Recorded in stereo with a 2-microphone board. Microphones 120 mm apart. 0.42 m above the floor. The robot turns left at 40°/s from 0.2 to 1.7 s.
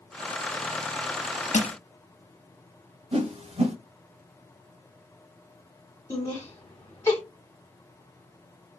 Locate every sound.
1.5 s crushing: 85° left, 0.6 m
3.1 s a whoosh: 60° right (ahead or behind), 1.1 m
6.1 s laughter: 25° left (ahead or behind), 1.2 m